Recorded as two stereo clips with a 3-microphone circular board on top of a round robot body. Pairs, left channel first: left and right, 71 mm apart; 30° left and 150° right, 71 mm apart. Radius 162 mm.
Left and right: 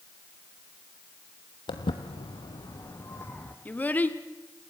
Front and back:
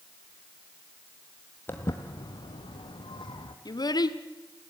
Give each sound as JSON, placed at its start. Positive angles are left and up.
{"t": 1.7, "sound": "footsteps", "azimuth_deg": 95, "distance_m": 1.1}
{"t": 3.6, "sound": "a child speaking", "azimuth_deg": 25, "distance_m": 1.5}